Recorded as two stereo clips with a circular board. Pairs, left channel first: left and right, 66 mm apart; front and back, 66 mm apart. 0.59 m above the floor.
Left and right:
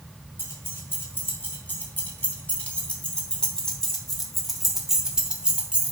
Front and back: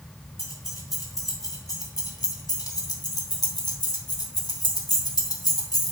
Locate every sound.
0.4 s keys jangling: 40° left, 3.5 m; by 5.9 s 20° right, 2.5 m